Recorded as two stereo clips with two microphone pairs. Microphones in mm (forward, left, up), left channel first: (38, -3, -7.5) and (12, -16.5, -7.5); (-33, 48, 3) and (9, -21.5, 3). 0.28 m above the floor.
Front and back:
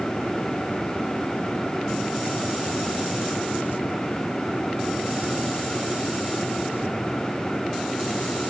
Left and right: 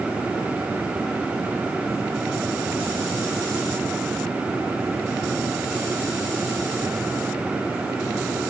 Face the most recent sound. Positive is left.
No sound to turn to.